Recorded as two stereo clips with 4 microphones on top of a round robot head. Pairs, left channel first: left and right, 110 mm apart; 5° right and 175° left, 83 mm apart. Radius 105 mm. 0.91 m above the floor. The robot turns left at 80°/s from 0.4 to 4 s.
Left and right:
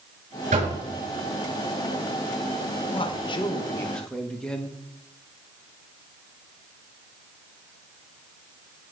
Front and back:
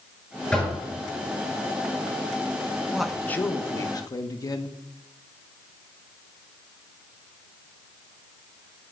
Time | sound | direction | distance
0.5 | knocking | 85° right | 6.5 m
2.9 | a man speaking | 95° left | 1.4 m